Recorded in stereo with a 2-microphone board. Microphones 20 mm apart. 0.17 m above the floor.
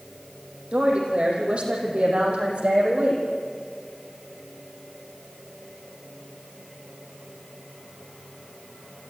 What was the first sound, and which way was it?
A woman speaking, 60° right (ahead or behind).